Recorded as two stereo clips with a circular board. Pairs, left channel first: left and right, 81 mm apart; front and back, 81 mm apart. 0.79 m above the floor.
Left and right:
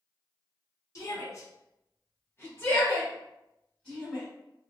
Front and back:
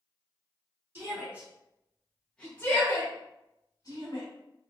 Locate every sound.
0.9 s a shout: 125° left, 1.2 m; by 4.2 s 5° left, 1.4 m